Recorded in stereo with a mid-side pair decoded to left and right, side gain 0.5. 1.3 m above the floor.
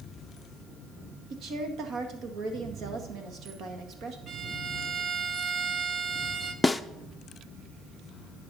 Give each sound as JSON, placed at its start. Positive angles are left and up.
{"t": 1.3, "sound": "a woman speaking", "azimuth_deg": -65, "distance_m": 1.8}
{"t": 4.3, "sound": "a violin", "azimuth_deg": -50, "distance_m": 1.0}
{"t": 6.6, "sound": "a snare drum", "azimuth_deg": 10, "distance_m": 0.5}